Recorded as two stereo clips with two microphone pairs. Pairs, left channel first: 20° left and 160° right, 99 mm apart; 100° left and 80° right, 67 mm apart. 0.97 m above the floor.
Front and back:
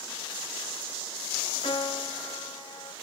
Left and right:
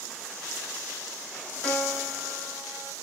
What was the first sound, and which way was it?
A piano, 25° left.